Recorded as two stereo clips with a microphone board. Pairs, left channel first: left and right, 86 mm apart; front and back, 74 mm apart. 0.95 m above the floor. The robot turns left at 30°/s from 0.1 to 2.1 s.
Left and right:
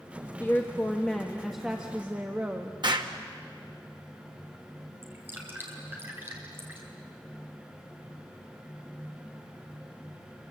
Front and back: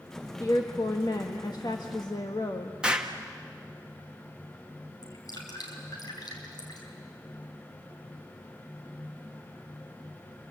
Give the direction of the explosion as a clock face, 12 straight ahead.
3 o'clock.